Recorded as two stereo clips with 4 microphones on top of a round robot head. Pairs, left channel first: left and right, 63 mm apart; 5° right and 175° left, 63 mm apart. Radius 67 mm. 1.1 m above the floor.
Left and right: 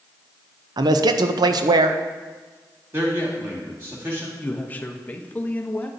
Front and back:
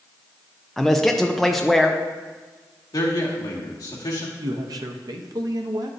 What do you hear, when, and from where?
0.8 s a man speaking: 95° right, 0.6 m
2.9 s a man speaking: 35° right, 2 m
4.4 s a man speaking: 155° left, 0.9 m